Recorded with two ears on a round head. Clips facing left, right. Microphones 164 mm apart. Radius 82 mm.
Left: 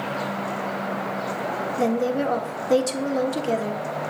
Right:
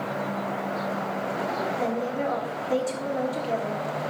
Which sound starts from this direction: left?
A woman speaking, at 1.8 s.